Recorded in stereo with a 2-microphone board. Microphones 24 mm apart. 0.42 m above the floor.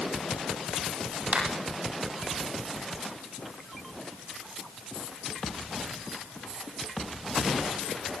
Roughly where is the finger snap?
Right.